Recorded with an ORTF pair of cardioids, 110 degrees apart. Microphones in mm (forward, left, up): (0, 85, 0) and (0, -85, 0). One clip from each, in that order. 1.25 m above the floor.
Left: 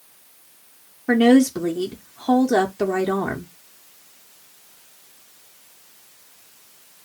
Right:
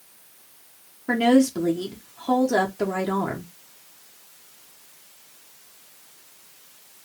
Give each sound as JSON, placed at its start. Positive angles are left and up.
{"t": 1.1, "sound": "a woman speaking", "azimuth_deg": 15, "distance_m": 0.6}